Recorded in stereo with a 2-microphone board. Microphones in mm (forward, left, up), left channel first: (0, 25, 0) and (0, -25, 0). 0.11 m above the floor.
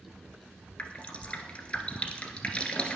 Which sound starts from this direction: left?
Dripping, at 0.8 s.